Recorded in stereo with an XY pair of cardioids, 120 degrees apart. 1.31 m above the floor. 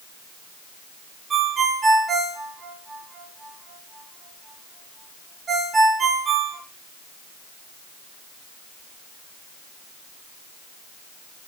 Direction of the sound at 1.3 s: 35° right.